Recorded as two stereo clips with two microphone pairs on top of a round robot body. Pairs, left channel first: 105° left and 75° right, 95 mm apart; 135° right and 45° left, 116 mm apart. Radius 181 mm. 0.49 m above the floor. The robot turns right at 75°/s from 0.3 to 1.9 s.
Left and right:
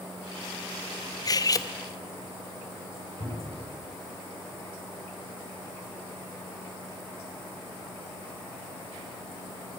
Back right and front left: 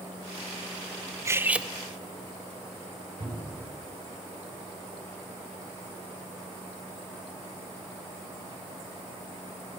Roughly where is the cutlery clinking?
Left.